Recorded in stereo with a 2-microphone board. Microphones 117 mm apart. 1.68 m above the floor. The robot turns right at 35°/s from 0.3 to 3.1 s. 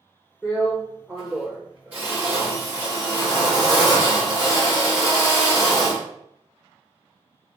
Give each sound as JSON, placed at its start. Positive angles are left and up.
{"t": 0.4, "sound": "a drill", "azimuth_deg": 155, "distance_m": 1.4}